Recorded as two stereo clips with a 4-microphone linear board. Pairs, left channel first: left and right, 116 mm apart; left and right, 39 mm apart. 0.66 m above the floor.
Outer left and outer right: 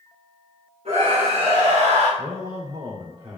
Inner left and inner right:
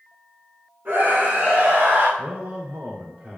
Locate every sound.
0.8 s a scream: 70° right (ahead or behind), 4 m
2.2 s a man speaking: 55° right (ahead or behind), 1.8 m